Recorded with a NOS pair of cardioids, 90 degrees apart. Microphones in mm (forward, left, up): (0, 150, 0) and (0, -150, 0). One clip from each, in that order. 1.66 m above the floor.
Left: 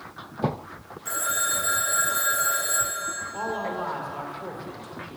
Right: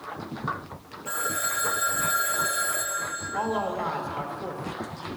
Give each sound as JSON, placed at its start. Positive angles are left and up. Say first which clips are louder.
{"t": 1.1, "sound": "a phone ringing", "louder": "left 2 dB", "azimuth_deg": 40, "distance_m": 1.7}
{"t": 3.3, "sound": "a man speaking", "louder": "right 4 dB", "azimuth_deg": -10, "distance_m": 1.0}